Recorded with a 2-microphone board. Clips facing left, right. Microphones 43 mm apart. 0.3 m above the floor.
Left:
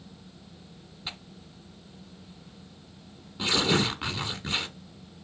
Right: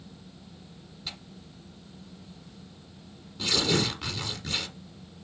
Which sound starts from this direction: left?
Tearing paper, at 1.1 s.